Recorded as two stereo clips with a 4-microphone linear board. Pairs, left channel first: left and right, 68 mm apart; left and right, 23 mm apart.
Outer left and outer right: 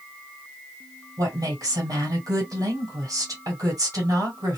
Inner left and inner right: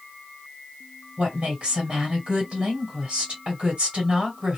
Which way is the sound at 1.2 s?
50° right (ahead or behind).